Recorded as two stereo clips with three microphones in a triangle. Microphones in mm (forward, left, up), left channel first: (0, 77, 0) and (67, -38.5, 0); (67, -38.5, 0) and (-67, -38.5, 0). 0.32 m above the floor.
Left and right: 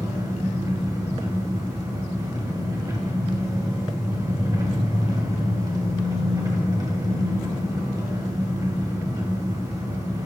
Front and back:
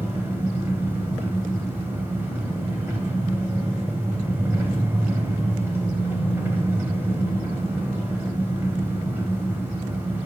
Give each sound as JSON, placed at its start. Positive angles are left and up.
{"t": 0.0, "sound": "an engine running", "azimuth_deg": -110, "distance_m": 1.2}